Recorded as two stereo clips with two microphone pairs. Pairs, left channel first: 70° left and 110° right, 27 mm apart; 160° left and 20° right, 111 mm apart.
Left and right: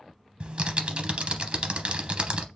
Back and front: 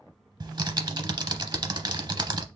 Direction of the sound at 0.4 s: 60° right.